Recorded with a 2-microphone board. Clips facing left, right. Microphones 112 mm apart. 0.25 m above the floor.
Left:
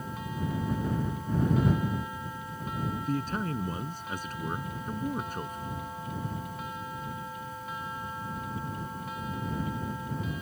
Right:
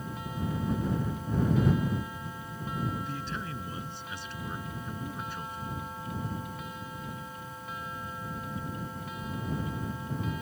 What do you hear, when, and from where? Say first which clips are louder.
3.1 s a man speaking: left 6 dB; 45° left (ahead or behind)